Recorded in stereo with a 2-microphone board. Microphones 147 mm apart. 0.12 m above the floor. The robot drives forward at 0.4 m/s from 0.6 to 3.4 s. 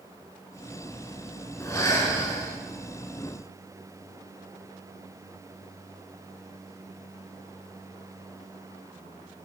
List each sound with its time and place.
1.6 s breathing: 20° left (ahead or behind), 1.4 m